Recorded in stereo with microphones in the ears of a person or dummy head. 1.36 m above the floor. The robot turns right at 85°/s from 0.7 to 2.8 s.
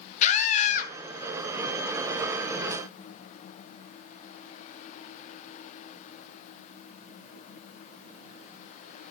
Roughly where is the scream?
Left.